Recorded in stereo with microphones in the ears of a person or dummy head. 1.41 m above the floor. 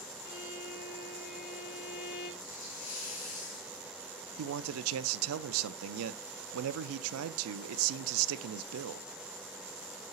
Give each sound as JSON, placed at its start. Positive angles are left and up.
{"t": 0.2, "sound": "a violin", "side_deg": 55, "distance_m": 3.0}
{"t": 2.4, "sound": "a hiss", "side_deg": 75, "distance_m": 3.5}
{"t": 4.4, "sound": "a man speaking", "side_deg": -85, "distance_m": 0.6}